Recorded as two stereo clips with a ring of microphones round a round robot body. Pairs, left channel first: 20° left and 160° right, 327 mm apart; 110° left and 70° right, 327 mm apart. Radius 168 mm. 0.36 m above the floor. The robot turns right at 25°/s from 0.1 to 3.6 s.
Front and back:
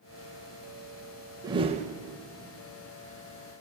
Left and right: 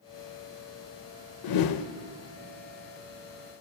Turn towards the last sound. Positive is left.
turn(degrees=180)